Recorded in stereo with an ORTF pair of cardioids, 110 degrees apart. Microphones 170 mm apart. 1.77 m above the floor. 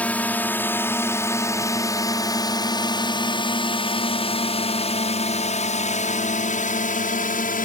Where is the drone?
10° left; by 7.7 s 50° left.